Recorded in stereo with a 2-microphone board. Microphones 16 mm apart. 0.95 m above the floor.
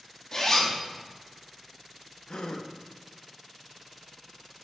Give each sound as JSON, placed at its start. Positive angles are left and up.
{"t": 0.3, "sound": "a zipper", "side_deg": 45, "distance_m": 1.7}
{"t": 2.3, "sound": "a gasp", "side_deg": 75, "distance_m": 0.7}